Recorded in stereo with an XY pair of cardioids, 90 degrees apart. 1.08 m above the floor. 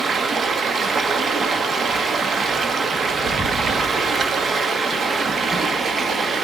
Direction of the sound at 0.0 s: 60° right.